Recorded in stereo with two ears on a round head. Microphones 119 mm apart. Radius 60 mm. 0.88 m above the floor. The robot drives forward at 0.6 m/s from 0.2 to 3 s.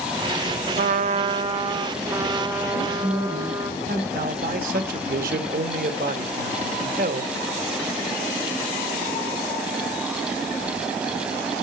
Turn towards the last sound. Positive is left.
turn(degrees=-70)  # may be behind; listen again after turning